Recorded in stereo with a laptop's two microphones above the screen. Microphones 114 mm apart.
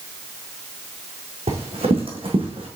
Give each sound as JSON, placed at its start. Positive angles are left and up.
{"t": 1.5, "sound": "running footsteps", "side_deg": -60, "distance_m": 2.5}